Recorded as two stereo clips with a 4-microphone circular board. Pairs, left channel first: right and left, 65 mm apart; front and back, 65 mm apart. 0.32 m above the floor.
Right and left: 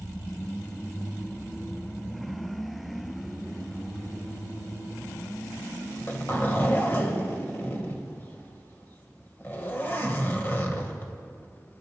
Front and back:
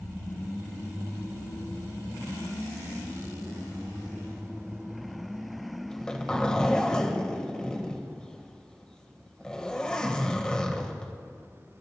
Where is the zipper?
70° right, 1.6 m.